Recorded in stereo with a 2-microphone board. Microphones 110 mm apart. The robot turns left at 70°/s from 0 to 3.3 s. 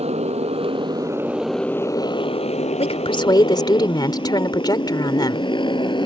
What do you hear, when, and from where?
0.0 s a motorcycle: 75° right (ahead or behind); by 6.1 s 45° left (ahead or behind)
2.8 s a woman speaking: 80° left; by 5.5 s 40° left